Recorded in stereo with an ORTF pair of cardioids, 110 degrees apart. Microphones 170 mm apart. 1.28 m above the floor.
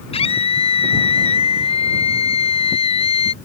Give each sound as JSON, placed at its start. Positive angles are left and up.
{"t": 0.1, "sound": "a scream", "azimuth_deg": 35}